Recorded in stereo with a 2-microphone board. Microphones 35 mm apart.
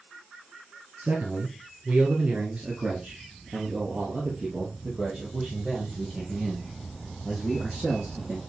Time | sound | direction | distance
1.0 | a man speaking | 45° right (ahead or behind) | 2.5 m